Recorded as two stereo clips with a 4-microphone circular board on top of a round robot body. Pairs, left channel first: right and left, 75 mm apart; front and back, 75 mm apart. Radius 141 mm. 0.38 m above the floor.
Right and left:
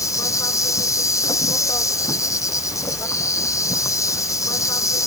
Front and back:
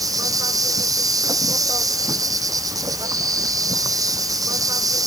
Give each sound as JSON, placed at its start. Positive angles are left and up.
{"t": 0.0, "sound": "an insect", "azimuth_deg": -140}